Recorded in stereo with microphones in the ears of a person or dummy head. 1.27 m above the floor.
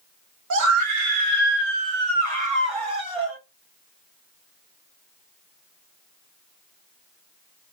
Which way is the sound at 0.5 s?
80° right.